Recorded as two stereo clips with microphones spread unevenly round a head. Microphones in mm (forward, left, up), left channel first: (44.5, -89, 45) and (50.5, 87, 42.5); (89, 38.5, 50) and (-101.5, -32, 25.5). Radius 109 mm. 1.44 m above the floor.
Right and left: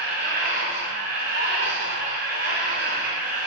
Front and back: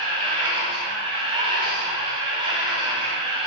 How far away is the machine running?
About 2 m.